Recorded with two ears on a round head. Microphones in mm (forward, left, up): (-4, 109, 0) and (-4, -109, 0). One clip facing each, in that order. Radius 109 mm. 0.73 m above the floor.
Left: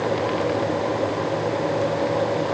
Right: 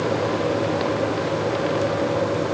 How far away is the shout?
No shout in this recording.